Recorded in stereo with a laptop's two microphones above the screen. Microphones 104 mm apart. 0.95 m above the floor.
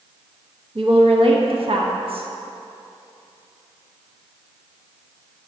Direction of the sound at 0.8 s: 60° right (ahead or behind).